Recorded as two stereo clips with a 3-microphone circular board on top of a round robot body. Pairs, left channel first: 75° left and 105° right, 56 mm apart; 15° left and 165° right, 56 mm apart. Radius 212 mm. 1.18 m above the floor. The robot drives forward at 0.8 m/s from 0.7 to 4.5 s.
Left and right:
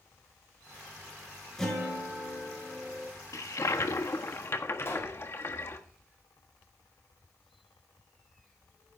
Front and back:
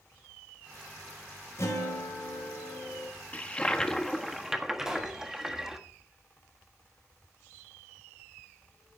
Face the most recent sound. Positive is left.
turn(degrees=115)